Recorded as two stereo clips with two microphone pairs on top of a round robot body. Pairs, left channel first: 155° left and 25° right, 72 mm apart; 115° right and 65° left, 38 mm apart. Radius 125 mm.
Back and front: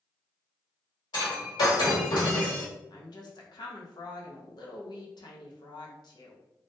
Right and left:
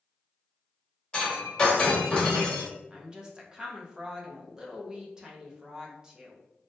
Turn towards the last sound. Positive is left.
turn(degrees=135)